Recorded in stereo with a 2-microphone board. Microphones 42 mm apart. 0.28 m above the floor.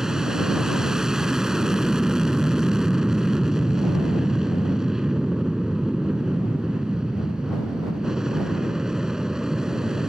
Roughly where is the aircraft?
Centre.